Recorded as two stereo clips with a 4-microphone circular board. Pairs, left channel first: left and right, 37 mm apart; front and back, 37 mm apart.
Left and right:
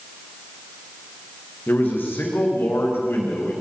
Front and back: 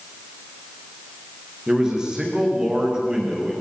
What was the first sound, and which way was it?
A man speaking, 110° left.